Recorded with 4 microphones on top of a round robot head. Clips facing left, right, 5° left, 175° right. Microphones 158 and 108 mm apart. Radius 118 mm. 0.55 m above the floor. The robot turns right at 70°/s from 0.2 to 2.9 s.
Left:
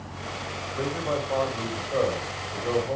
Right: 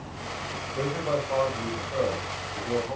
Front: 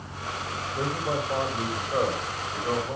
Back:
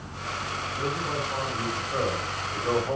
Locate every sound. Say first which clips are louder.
0.8 s a man speaking: right 1 dB, front 2 dB; 30° right, 4 m; by 3.0 s 120° left, 4 m